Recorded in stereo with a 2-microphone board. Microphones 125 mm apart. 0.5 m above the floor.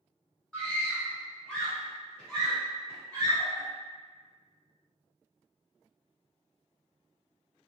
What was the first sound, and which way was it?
A scream, 10° left (ahead or behind).